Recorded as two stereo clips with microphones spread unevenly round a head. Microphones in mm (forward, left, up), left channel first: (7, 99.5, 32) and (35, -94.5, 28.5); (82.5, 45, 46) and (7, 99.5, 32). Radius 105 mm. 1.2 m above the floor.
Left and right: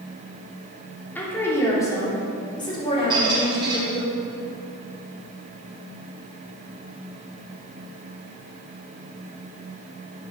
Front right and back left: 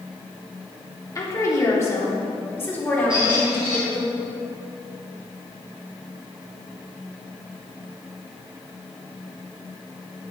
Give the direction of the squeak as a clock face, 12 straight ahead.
5 o'clock.